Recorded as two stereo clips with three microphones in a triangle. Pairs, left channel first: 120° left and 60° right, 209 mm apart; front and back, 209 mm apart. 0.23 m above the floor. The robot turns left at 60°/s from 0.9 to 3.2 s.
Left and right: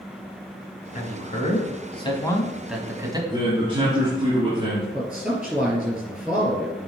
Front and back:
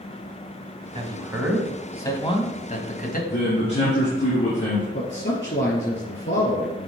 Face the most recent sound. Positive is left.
turn(degrees=25)